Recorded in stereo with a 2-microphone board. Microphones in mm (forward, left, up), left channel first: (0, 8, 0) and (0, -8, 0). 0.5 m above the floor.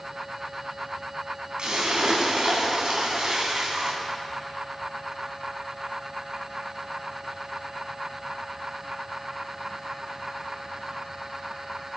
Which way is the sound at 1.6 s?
75° right (ahead or behind).